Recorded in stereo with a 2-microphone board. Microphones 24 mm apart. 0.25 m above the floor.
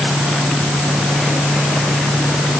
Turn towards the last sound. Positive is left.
No sound to turn to.